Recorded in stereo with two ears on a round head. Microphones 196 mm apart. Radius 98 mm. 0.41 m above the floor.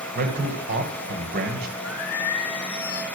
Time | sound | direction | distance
0.1 | a man speaking | 50° right (ahead or behind) | 2 m
1.8 | singing | 75° left (ahead or behind) | 1.4 m